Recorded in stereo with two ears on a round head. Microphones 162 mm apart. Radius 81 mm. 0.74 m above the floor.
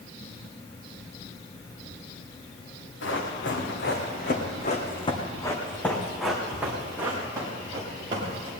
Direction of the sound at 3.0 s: 75° left (ahead or behind).